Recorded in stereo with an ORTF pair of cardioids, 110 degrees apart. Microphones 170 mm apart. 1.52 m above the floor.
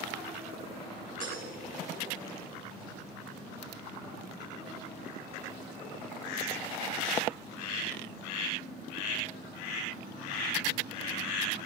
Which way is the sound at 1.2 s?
50° right.